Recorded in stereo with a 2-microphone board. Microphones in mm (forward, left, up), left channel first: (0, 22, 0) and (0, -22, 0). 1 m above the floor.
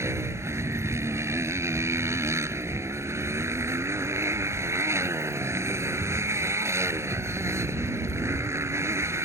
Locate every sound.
0.0 s a motorcycle: 80° right